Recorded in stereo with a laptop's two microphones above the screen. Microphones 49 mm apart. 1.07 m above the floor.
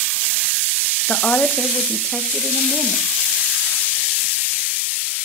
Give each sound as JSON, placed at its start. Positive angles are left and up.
{"t": 1.1, "sound": "a woman speaking", "side_deg": 55, "distance_m": 0.9}